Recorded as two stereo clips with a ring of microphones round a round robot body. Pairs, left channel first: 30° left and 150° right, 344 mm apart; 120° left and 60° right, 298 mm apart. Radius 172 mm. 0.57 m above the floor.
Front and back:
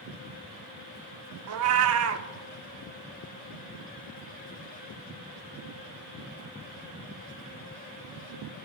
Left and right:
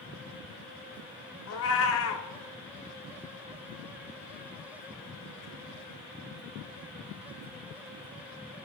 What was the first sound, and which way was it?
A cat meowing, 165° left.